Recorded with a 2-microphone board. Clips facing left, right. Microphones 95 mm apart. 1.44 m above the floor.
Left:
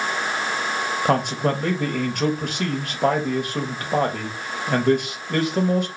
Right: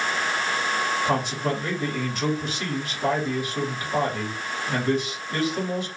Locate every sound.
1.1 s a man speaking: 60° left (ahead or behind), 1.2 m